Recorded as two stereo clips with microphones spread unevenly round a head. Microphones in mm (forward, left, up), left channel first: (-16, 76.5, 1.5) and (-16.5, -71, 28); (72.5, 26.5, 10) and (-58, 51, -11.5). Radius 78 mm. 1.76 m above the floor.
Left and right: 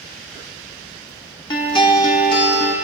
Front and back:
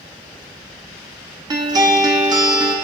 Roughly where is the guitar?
Behind left.